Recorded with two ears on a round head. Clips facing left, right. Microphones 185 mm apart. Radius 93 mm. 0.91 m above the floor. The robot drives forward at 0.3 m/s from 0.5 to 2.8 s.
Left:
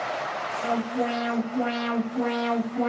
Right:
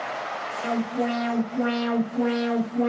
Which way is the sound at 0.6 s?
20° right (ahead or behind).